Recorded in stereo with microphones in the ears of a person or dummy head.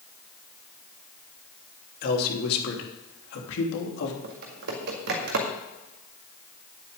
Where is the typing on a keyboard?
60° right (ahead or behind), 1.8 m.